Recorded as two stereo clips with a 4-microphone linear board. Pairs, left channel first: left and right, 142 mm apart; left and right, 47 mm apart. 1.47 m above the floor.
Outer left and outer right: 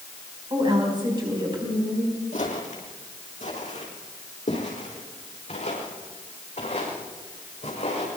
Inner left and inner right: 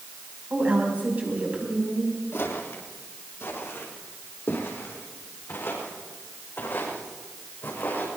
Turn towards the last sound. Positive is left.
turn(degrees=55)  # may be behind; listen again after turning